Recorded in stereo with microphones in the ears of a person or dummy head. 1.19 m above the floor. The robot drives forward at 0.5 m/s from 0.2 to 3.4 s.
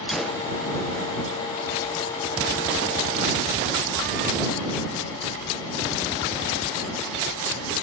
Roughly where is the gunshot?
Centre.